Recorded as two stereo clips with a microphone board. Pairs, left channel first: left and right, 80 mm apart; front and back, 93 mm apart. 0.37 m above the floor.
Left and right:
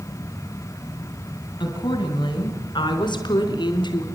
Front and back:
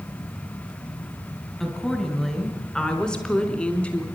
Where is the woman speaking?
90° left, 4.5 m; by 4.0 s 75° left, 3.5 m.